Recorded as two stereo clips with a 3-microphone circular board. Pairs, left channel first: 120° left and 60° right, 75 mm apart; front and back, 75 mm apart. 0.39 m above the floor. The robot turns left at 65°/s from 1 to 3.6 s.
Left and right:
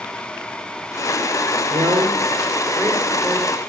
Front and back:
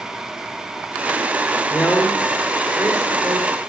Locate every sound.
1.7 s a man speaking: 65° right, 5.5 m; by 3.5 s straight behind, 5.5 m